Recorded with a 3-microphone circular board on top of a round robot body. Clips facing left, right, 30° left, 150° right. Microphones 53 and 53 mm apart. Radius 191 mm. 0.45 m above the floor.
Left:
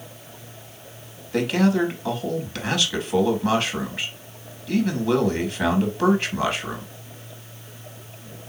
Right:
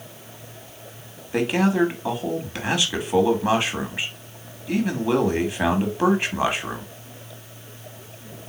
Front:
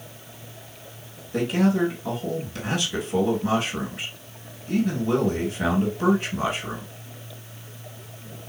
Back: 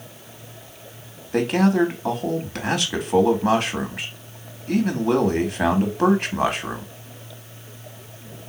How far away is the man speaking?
About 1.7 m.